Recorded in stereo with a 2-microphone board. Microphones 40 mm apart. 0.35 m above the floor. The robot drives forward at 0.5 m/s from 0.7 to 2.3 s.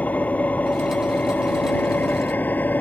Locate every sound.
0.0 s an engine running: 40° left (ahead or behind); by 2.8 s 45° left (ahead or behind)